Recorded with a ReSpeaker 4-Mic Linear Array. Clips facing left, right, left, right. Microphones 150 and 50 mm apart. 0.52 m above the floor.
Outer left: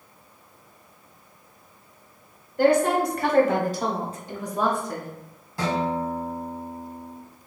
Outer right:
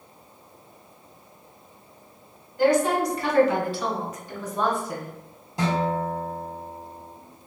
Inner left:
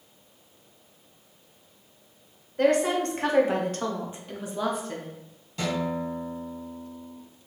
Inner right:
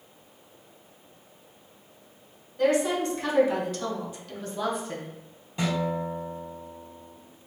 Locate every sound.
2.6 s a woman speaking: 60° left (ahead or behind), 1.6 m; by 5.1 s 15° right (ahead or behind), 0.9 m
5.6 s a guitar: 20° right (ahead or behind), 1.7 m